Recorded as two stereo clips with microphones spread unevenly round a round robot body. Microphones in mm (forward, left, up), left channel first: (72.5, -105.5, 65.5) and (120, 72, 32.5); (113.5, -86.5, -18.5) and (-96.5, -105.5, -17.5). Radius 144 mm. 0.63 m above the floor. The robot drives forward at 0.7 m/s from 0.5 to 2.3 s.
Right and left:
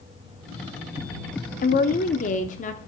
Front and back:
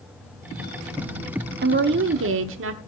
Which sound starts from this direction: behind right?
A woman speaking, at 1.6 s.